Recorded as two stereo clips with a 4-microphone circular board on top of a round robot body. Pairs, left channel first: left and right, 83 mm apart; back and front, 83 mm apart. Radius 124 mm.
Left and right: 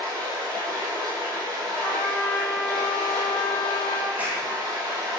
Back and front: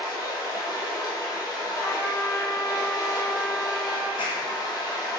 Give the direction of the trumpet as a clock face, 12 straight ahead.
7 o'clock.